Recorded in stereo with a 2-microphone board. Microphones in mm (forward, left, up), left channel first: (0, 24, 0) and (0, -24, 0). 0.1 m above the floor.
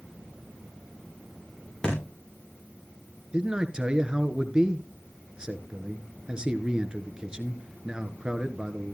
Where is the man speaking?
20° right (ahead or behind), 1.1 m.